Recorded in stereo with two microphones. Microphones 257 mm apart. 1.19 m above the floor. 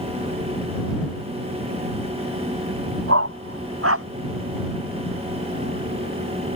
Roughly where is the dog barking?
Right.